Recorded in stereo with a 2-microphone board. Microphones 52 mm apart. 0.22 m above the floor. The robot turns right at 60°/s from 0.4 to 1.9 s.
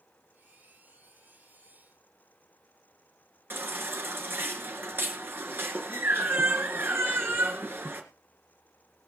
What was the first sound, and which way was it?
A baby crying, 45° right (ahead or behind).